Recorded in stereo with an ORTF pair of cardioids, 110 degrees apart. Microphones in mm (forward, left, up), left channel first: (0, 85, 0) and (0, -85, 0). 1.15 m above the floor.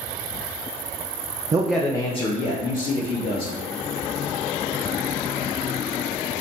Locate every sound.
1.5 s a man speaking: 20° right, 0.5 m; by 3.6 s 65° left, 1.7 m